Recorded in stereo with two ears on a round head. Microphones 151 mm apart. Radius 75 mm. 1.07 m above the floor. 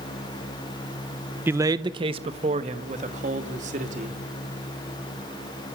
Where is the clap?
No clap in this recording.